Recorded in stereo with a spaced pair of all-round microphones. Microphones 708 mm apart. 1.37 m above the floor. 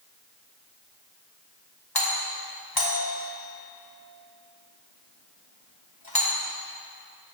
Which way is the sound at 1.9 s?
30° left (ahead or behind).